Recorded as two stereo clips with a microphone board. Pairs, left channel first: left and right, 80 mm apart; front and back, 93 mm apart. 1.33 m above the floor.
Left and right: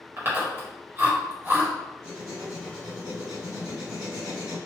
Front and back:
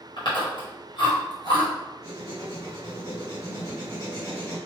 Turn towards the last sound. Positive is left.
turn(degrees=-55)